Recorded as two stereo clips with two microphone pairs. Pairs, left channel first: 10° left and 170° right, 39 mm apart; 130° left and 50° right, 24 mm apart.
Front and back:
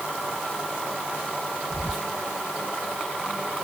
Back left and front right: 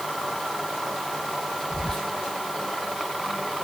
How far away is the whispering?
About 0.8 m.